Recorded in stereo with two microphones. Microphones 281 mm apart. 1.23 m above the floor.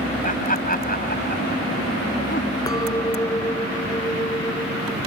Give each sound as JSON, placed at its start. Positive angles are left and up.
{"t": 0.2, "sound": "laughter", "side_deg": 30}
{"t": 2.7, "sound": "a clink", "side_deg": 15}